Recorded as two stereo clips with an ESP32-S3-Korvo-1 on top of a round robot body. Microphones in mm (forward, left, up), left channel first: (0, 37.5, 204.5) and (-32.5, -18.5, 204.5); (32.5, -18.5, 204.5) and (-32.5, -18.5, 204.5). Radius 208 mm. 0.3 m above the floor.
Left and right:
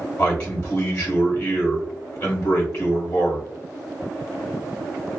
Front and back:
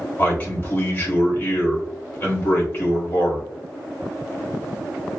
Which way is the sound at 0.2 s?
30° left.